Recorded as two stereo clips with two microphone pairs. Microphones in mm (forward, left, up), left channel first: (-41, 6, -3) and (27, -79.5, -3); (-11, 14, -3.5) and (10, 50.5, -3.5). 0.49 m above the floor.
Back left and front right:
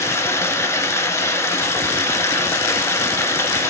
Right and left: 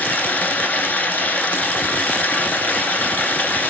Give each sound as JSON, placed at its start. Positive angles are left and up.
{"t": 0.0, "sound": "running water", "azimuth_deg": -165, "distance_m": 0.9}